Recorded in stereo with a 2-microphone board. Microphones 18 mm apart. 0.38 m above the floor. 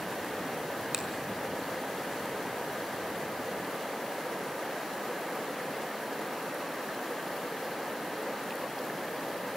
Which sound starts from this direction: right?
A finger snap, at 0.9 s.